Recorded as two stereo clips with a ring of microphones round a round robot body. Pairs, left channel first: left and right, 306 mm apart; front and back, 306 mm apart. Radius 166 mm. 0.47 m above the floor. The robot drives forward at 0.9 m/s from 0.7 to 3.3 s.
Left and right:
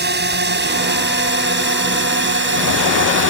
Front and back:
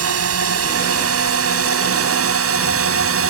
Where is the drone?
145° right; by 3.3 s 140° right.